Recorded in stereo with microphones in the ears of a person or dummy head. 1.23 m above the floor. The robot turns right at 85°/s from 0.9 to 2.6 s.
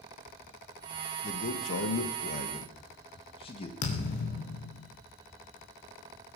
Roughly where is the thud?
Left.